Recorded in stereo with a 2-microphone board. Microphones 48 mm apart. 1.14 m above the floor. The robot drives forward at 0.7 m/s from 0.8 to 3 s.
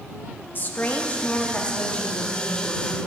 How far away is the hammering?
No hammering in this recording.